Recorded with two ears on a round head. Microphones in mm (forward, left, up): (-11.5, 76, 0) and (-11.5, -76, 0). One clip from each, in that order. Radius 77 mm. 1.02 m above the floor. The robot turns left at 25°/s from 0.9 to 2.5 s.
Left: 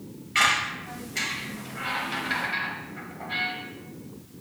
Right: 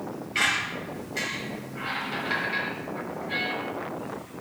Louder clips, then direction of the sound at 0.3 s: Left 3 dB; 25° left (ahead or behind).